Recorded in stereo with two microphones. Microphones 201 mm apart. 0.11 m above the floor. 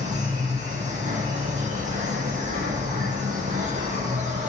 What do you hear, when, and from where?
0.0 s an insect: 40° right (ahead or behind), 0.8 m